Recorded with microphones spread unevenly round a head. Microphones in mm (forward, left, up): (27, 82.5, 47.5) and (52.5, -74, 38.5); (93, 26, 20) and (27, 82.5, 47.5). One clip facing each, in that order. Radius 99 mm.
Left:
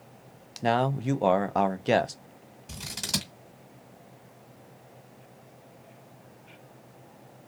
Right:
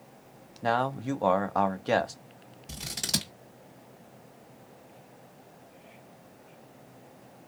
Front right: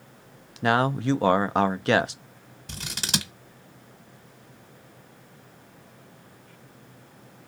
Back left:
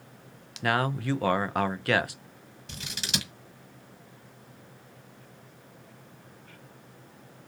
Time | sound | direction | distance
0.6 | a man speaking | 30° left | 0.6 m
2.7 | scissors | 10° left | 1.3 m